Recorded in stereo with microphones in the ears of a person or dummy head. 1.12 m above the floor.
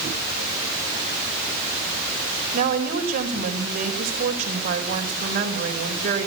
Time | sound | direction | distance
2.5 | a woman speaking | 45° right (ahead or behind) | 4 m